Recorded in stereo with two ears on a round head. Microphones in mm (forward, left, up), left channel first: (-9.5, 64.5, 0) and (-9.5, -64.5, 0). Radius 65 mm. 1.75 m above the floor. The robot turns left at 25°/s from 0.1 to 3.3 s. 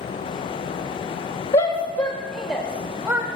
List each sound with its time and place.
1.5 s a shout: 35° left (ahead or behind), 1.5 m; by 3.3 s 5° right (ahead or behind), 1.5 m